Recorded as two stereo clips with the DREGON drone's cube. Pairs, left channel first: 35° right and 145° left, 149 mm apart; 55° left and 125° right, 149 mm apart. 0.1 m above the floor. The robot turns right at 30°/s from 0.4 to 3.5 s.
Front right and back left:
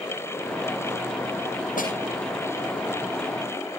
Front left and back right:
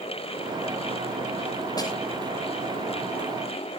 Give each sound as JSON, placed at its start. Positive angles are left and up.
{"t": 1.8, "sound": "a snare drum", "azimuth_deg": -10, "distance_m": 6.5}